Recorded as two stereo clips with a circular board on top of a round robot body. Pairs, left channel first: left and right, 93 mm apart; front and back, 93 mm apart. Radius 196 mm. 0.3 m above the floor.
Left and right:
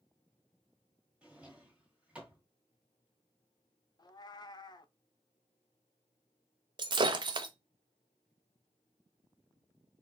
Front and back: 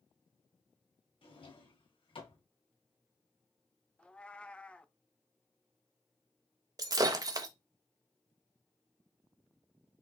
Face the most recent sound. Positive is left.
turn(degrees=-130)